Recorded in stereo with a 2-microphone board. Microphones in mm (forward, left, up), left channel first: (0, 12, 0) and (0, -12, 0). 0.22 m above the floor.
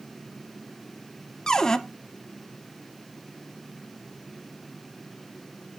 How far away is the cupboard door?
About 0.7 m.